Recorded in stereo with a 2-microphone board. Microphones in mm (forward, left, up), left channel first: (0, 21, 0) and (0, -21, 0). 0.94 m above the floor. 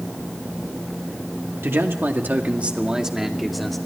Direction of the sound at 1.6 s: 70° right (ahead or behind).